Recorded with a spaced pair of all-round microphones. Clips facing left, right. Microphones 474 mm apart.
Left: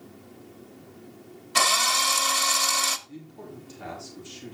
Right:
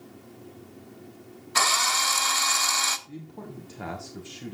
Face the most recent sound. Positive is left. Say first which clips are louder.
# right 1 dB
turn(degrees=-65)  # may be behind; listen again after turning